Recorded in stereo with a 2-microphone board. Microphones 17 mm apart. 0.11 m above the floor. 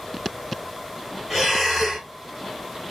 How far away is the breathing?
About 1.4 m.